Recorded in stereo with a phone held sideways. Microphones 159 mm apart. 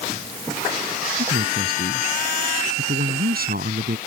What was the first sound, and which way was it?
A man speaking, 75° right (ahead or behind).